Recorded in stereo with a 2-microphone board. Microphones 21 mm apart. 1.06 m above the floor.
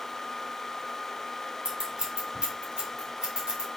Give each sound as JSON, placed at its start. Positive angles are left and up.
{"t": 1.6, "sound": "scissors", "side_deg": -60, "distance_m": 3.5}